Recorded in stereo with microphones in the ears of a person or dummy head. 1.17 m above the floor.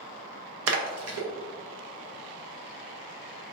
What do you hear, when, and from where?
0.7 s a splash: 70° right (ahead or behind), 0.5 m